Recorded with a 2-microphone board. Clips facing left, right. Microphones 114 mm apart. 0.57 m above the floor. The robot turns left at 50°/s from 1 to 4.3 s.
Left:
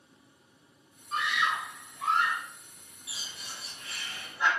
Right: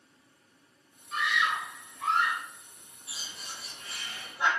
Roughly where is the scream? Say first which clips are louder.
Even; ahead left.